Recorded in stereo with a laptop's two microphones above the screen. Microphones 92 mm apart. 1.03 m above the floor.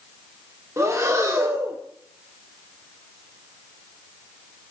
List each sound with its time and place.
0.8 s breathing: 35° right (ahead or behind), 1.7 m